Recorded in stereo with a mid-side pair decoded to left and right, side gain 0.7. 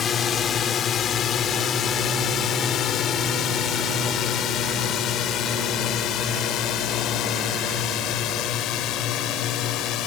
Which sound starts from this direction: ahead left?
A drone, at 0.0 s.